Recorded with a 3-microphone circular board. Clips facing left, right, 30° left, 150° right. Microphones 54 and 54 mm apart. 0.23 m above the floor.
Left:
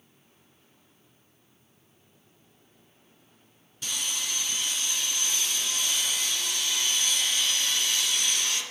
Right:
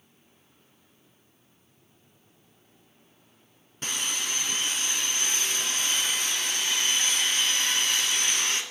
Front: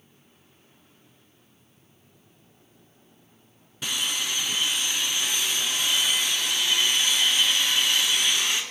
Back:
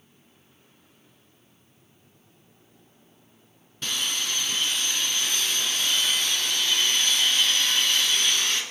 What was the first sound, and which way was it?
Sawing, 50° right.